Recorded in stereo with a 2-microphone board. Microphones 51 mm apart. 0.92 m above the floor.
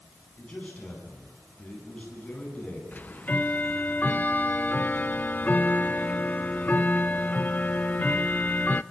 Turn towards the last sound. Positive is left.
turn(degrees=35)  # may be behind; listen again after turning